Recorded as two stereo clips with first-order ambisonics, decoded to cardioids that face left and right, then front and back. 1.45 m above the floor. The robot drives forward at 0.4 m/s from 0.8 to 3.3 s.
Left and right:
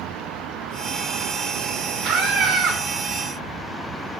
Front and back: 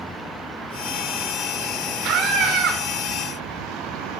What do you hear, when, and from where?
2.0 s a scream: 135° right, 1.8 m; by 2.8 s 140° right, 2.0 m